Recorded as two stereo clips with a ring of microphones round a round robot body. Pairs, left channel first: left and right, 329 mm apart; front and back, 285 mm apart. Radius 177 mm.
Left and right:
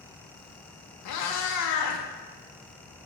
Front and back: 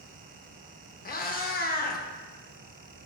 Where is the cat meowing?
60° left, 0.6 m.